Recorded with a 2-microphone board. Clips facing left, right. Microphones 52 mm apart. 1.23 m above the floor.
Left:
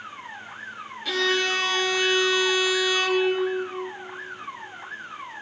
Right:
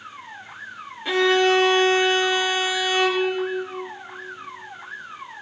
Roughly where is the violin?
Right.